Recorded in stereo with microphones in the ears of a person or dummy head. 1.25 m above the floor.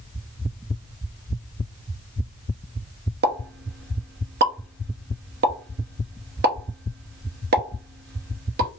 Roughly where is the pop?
Right.